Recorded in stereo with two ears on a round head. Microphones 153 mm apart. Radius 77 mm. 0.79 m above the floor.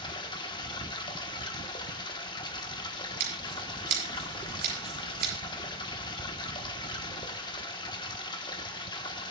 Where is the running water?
25° left (ahead or behind), 1.2 m.